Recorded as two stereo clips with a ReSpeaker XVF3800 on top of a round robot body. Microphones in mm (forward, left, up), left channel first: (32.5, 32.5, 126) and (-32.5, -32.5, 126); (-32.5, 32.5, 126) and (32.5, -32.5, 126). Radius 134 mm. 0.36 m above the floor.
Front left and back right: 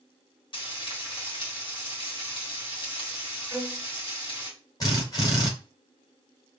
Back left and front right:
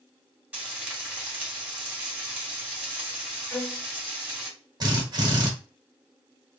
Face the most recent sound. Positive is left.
turn(degrees=0)